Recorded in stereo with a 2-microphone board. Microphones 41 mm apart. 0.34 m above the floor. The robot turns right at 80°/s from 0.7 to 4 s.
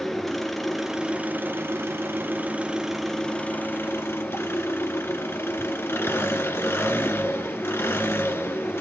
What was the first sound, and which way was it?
An engine running, straight behind.